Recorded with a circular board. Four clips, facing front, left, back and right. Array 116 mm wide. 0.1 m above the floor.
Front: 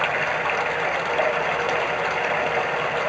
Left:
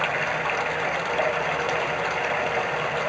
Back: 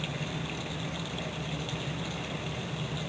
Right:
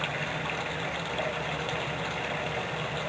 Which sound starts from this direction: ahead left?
Running water, at 0.0 s.